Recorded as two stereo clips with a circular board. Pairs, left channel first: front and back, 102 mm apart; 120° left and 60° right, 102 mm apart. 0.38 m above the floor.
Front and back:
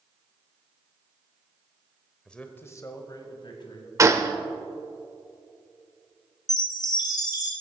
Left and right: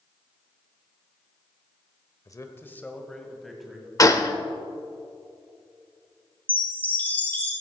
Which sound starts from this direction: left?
A man speaking, at 2.2 s.